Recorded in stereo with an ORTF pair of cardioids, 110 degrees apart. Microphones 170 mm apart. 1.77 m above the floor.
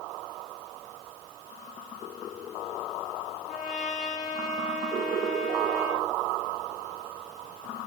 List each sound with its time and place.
3.5 s a trumpet: 50° left, 3 m